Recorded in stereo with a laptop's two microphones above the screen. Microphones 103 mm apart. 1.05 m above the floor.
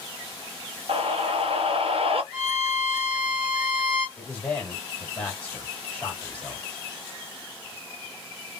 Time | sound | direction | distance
0.9 | a scream | 65° right (ahead or behind) | 1.0 m
2.3 | a violin | 10° left (ahead or behind) | 1.6 m
4.2 | a man speaking | 15° left (ahead or behind) | 1.9 m